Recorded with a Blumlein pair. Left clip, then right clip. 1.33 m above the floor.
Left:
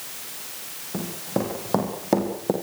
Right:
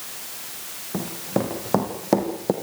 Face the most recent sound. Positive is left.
turn(degrees=0)